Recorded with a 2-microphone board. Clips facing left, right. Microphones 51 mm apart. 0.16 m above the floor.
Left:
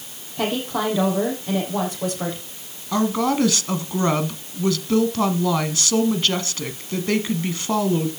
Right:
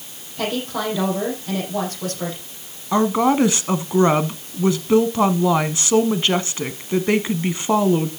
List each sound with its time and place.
0.4 s a woman speaking: 10° left (ahead or behind), 6.5 m
2.9 s a woman speaking: 20° right (ahead or behind), 1.1 m